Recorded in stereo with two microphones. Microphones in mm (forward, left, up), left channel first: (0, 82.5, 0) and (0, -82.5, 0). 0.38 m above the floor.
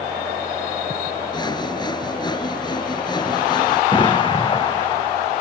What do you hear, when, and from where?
1.3 s sawing: 25° left (ahead or behind)
3.9 s an explosion: 25° left (ahead or behind)